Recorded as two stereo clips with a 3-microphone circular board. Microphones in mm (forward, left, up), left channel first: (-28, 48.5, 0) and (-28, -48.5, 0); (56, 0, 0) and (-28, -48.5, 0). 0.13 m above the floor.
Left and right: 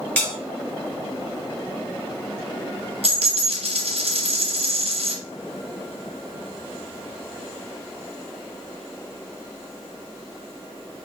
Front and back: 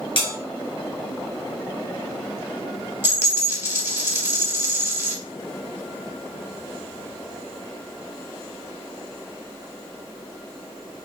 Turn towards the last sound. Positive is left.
turn(degrees=-85)